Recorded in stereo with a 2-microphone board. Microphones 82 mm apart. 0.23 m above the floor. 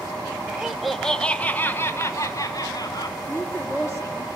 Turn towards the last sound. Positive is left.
turn(degrees=30)  # may be behind; listen again after turning